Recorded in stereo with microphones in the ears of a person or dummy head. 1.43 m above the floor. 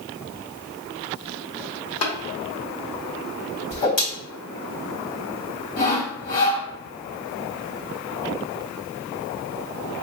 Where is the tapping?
70° left (ahead or behind), 1.2 m.